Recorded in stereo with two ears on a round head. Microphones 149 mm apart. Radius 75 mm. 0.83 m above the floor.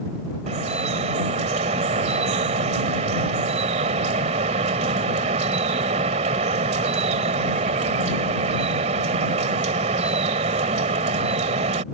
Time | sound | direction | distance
0.5 | dripping | 40° right (ahead or behind) | ?